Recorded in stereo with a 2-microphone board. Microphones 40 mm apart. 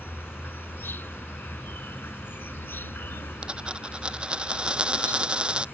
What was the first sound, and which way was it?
An insect, 70° left (ahead or behind).